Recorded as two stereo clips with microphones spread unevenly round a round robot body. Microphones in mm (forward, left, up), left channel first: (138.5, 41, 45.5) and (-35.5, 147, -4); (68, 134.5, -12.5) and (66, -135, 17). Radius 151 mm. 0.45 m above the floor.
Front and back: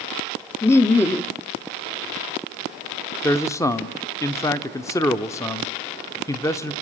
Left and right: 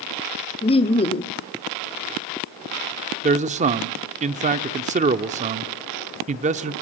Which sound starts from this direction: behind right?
A man speaking, at 3.2 s.